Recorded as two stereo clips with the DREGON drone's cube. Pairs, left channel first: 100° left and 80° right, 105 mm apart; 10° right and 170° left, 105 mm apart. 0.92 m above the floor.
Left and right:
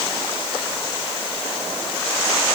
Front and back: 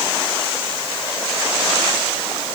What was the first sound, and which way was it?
Only background noise.